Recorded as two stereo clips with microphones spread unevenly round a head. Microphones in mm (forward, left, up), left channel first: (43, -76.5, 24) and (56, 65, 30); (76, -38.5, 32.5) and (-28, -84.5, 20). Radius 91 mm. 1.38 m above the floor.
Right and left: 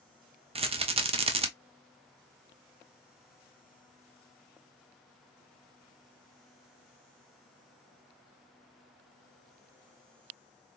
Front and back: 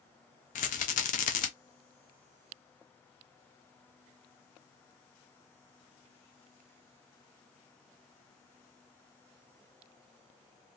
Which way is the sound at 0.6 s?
35° left.